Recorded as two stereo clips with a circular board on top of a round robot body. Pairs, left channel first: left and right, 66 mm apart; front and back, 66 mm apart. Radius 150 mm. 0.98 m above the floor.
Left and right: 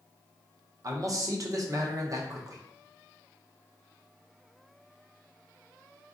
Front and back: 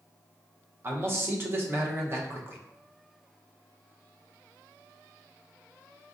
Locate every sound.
0.8 s a man speaking: 125° right, 0.9 m